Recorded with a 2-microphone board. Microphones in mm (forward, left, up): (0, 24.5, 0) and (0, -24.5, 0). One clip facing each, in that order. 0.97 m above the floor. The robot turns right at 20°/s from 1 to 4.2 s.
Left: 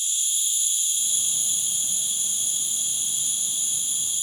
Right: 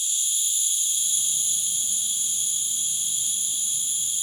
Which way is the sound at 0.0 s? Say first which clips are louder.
Even; 55° left.